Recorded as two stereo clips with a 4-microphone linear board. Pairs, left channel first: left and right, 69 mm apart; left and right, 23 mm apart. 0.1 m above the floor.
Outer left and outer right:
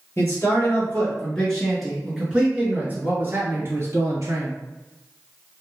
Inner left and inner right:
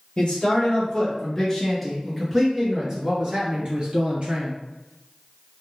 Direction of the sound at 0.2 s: 35° left (ahead or behind).